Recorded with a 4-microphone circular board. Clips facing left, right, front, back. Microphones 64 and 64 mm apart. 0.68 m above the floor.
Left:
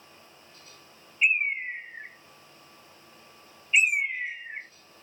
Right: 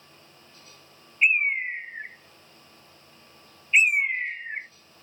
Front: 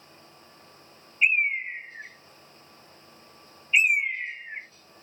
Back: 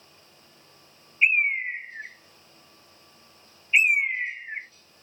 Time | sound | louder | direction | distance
1.2 | a bird | right 3 dB, back 1 dB | 130° right | 0.6 m